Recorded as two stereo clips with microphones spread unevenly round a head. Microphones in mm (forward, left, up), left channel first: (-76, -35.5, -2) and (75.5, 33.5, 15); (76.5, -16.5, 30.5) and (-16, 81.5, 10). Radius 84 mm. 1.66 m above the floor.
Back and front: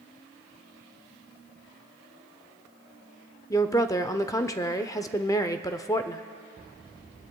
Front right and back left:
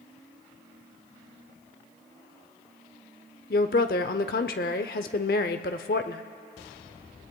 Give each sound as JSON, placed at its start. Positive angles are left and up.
{"t": 3.5, "sound": "a woman speaking", "azimuth_deg": -85, "distance_m": 0.6}